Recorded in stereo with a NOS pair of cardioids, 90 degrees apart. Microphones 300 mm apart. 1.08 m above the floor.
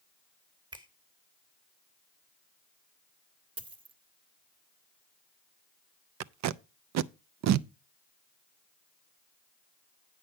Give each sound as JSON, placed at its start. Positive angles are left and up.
{"t": 0.7, "sound": "a finger snap", "azimuth_deg": -15, "distance_m": 1.6}
{"t": 3.6, "sound": "a dropped coin", "azimuth_deg": -20, "distance_m": 1.3}
{"t": 6.2, "sound": "tape being pulled", "azimuth_deg": -70, "distance_m": 0.6}